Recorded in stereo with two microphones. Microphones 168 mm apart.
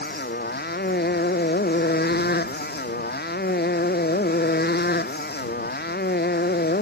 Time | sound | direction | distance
0.0 | a motorcycle | 75° left (ahead or behind) | ?